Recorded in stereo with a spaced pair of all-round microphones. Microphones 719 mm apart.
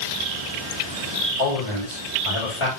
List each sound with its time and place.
1.4 s a man speaking: 45° left (ahead or behind), 2 m